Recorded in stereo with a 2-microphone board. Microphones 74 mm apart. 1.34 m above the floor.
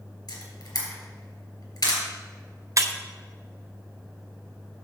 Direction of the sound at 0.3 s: 70° left (ahead or behind).